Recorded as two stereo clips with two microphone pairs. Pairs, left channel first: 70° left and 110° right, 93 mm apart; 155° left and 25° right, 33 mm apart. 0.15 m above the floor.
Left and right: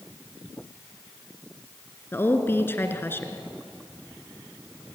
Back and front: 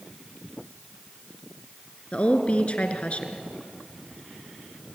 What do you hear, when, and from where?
2.1 s a woman speaking: 125° left, 2 m